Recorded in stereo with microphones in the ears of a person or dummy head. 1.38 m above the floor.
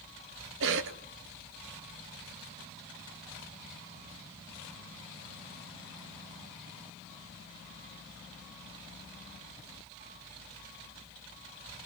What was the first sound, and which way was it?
A cough, 75° right (ahead or behind).